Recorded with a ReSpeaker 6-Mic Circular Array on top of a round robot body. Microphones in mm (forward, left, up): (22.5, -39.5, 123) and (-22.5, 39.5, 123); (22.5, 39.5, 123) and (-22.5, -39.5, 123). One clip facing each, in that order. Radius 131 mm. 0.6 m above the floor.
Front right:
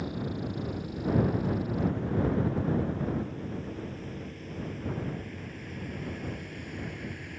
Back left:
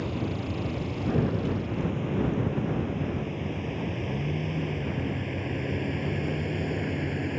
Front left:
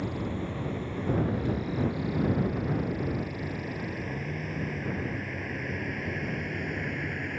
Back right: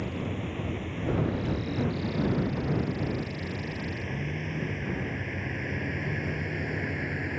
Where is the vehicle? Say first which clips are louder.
Back left 3 dB, front left 1 dB; 135° left; by 7.4 s 155° left.